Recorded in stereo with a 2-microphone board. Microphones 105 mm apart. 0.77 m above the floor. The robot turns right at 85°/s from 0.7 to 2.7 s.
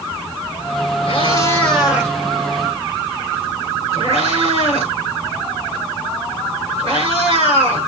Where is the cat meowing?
65° left (ahead or behind), 6.5 m; by 7.9 s 75° right (ahead or behind), 6.5 m.